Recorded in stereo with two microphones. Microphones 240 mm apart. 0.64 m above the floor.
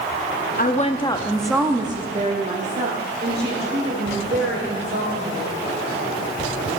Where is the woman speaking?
35° left (ahead or behind), 0.8 m; by 5.5 s 45° right (ahead or behind), 3 m.